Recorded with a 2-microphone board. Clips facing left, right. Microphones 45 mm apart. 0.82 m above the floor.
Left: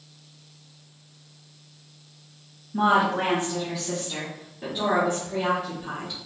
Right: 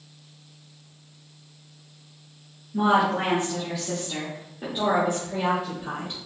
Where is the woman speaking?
20° left (ahead or behind), 1.3 m; by 6.2 s 40° right (ahead or behind), 3.5 m.